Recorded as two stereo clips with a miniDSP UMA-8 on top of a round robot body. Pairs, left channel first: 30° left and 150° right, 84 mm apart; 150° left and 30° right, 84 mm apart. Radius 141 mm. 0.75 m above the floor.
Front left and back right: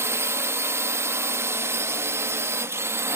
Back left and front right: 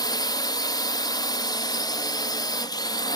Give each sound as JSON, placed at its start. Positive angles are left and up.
{"t": 0.0, "sound": "a drone", "azimuth_deg": 160}